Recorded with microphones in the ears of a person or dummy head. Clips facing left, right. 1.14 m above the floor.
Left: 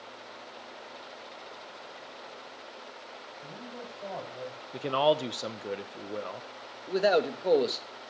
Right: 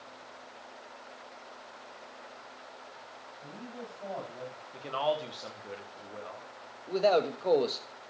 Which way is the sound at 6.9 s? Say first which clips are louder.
Left 1 dB; 10° left (ahead or behind).